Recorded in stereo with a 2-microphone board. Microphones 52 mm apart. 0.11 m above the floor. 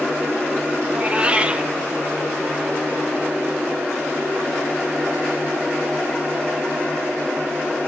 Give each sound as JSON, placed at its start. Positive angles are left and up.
{"t": 0.9, "sound": "a cat meowing", "side_deg": -25, "distance_m": 0.7}